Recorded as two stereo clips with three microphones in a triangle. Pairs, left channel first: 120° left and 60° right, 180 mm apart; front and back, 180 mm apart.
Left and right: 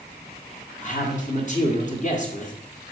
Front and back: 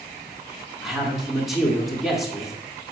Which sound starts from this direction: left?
A man speaking, at 0.8 s.